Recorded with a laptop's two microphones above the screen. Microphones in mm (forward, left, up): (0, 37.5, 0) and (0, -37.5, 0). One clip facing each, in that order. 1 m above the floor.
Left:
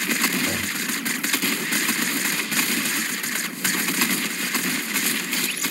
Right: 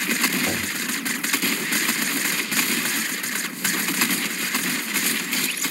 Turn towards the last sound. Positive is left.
turn(degrees=-60)  # may be behind; listen again after turning